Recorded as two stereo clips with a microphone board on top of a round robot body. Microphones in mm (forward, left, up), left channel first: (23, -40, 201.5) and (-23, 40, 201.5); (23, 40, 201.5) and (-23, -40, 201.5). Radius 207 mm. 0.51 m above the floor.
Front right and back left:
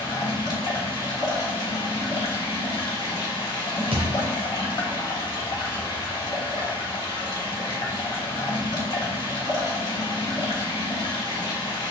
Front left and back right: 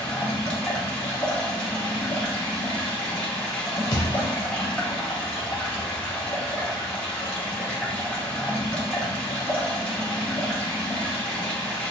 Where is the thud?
105° left, 0.6 m.